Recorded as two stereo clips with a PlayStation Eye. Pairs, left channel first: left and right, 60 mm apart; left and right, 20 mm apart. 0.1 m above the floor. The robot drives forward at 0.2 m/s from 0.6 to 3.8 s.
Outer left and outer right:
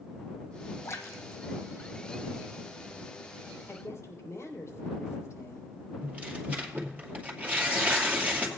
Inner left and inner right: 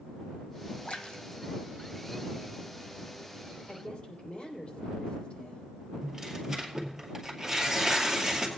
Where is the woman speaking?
45° left (ahead or behind), 3 m.